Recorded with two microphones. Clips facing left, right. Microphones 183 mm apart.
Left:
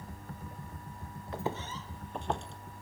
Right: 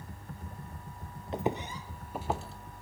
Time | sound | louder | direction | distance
1.3 | footsteps | right 4 dB | 20° right (ahead or behind) | 0.9 m